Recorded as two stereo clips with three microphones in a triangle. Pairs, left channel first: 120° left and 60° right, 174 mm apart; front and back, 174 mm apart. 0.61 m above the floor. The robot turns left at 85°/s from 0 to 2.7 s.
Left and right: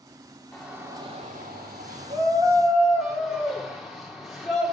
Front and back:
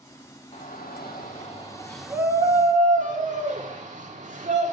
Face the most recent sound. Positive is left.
turn(degrees=-150)